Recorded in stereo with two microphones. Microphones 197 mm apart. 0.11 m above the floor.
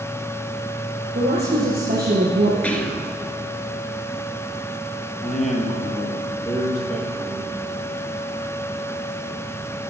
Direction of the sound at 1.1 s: 55° right (ahead or behind).